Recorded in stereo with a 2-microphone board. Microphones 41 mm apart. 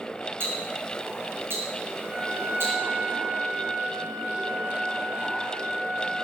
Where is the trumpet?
60° right (ahead or behind), 5.5 m.